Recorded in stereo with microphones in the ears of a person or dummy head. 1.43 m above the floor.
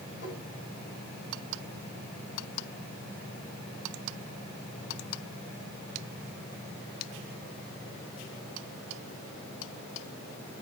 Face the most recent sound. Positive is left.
turn(degrees=80)